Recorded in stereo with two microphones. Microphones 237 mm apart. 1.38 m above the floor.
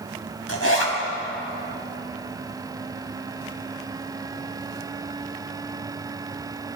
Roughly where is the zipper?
Left.